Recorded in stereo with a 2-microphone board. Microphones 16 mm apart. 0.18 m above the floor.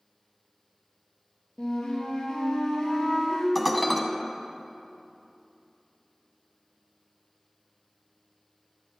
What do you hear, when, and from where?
1.6 s a flute: 60° left (ahead or behind), 2.5 m
3.5 s dishes clattering: centre (ahead or behind), 0.9 m